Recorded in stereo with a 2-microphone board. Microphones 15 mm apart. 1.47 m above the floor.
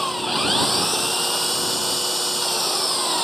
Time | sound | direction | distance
0.0 | an engine running | centre (ahead or behind) | ?